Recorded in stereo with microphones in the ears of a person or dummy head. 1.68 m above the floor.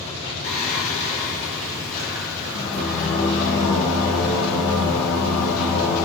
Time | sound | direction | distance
0.4 | singing | 45° left (ahead or behind) | 0.8 m